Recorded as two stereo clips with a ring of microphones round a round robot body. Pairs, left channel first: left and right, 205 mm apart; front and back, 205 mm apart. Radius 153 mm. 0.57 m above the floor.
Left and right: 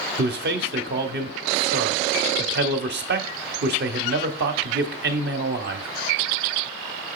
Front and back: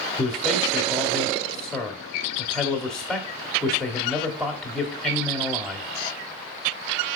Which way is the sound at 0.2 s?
85° right.